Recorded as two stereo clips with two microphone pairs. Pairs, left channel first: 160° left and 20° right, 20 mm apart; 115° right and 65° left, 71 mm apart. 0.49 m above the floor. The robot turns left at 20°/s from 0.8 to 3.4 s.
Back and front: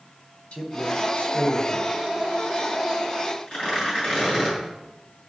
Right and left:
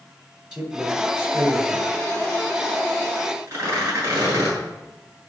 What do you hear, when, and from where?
0.5 s a man speaking: 140° left, 3.5 m; by 1.9 s 120° left, 3.5 m
3.5 s tearing paper: 110° left, 8 m